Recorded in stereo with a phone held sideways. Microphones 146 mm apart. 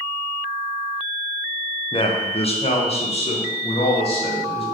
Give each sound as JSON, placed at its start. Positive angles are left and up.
{"t": 1.9, "sound": "a man speaking", "side_deg": 35, "distance_m": 0.9}